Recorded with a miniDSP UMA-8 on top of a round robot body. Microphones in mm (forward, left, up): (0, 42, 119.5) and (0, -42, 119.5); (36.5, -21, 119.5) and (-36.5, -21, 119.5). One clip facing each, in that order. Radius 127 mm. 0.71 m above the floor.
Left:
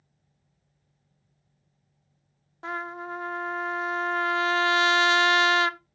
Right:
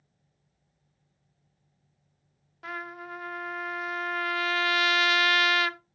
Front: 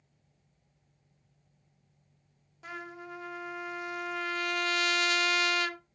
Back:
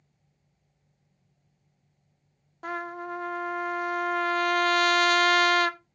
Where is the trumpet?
150° left, 0.6 m.